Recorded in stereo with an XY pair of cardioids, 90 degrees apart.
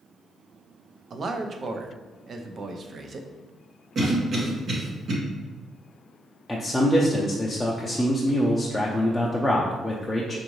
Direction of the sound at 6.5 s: 10° left.